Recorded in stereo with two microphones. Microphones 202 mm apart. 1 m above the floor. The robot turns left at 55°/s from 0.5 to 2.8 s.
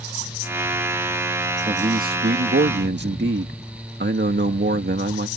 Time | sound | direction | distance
1.7 | a man speaking | 35° right | ?